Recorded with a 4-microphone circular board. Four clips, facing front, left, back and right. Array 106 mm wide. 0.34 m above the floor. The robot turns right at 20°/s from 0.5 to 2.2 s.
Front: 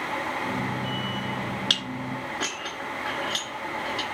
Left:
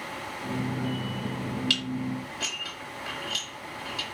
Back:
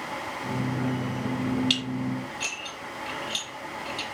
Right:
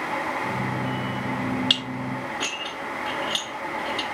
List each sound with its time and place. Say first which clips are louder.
1.7 s dishes clattering: right 2 dB, back 3 dB; 35° right, 3.5 m; by 4.0 s 25° right, 3.5 m